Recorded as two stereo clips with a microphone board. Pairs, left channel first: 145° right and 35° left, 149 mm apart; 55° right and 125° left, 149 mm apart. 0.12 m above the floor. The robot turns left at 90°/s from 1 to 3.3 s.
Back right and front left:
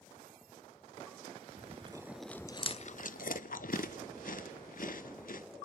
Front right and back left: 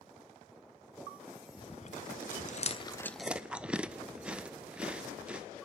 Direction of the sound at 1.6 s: Straight ahead.